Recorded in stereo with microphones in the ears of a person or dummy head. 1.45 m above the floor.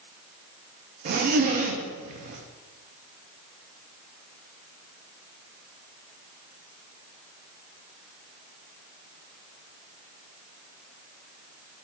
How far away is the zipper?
About 0.5 m.